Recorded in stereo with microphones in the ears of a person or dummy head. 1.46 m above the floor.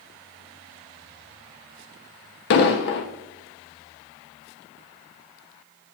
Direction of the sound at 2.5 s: 50° left (ahead or behind).